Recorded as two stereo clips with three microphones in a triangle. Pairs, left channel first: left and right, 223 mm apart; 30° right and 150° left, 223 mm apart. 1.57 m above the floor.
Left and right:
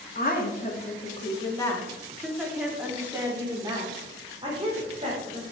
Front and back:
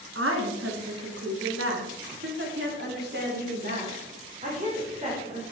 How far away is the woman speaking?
About 2.5 m.